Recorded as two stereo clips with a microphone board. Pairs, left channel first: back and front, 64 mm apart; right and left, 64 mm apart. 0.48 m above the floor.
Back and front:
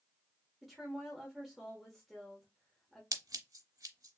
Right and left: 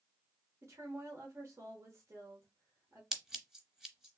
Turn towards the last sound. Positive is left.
turn(degrees=10)